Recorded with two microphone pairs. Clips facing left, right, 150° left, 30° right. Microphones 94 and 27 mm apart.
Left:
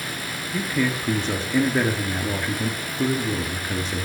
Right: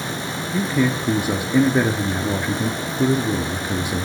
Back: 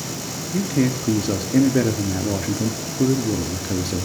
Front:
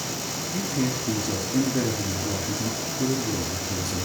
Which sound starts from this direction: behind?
A man speaking, at 0.5 s.